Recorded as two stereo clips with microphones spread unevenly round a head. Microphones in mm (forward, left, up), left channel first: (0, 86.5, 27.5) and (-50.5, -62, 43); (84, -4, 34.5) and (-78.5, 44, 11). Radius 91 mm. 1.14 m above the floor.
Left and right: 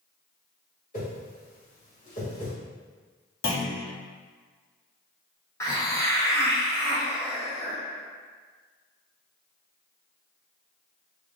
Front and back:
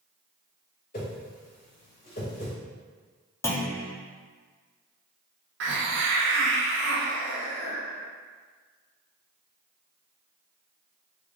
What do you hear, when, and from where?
0.9 s a whoosh: 20° left, 1.9 m
3.4 s a clunk: 60° left, 1.1 m
5.6 s a hiss: 145° left, 1.0 m